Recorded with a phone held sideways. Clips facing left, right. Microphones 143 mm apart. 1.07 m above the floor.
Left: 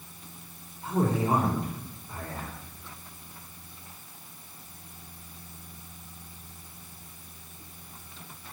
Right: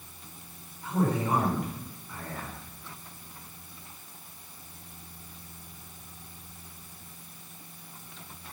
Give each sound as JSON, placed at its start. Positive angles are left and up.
{"t": 0.8, "sound": "a man speaking", "side_deg": 30, "distance_m": 3.5}